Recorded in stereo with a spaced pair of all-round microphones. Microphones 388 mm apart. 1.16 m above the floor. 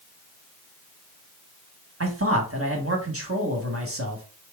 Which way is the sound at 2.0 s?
35° right (ahead or behind).